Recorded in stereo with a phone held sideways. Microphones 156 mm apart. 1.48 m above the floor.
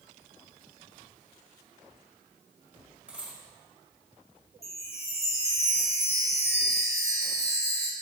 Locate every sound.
3.1 s a dropped coin: 10° right (ahead or behind), 1.9 m
4.6 s a chime: 45° left (ahead or behind), 0.8 m